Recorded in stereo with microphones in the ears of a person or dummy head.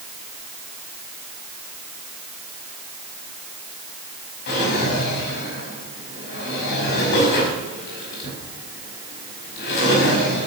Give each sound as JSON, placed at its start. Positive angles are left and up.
{"t": 4.5, "sound": "a drawer", "side_deg": 55, "distance_m": 5.0}